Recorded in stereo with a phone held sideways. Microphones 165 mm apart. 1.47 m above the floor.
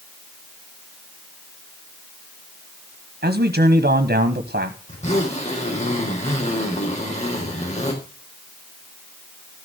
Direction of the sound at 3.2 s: 75° right (ahead or behind).